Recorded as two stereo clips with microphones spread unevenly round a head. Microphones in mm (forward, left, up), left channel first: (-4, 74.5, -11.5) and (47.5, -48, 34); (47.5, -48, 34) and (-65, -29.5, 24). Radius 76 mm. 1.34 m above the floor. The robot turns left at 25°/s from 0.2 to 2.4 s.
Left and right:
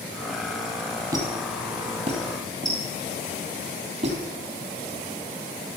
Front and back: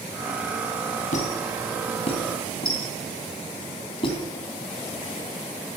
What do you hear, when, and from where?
1.1 s a squeak: 10° right, 3.5 m; by 4.2 s 40° right, 3.5 m